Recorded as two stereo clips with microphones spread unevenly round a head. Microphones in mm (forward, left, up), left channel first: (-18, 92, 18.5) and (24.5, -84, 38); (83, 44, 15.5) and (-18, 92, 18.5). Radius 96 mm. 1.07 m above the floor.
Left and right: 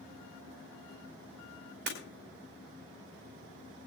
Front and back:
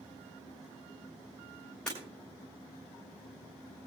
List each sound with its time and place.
1.9 s breaking glass: 110° right, 3 m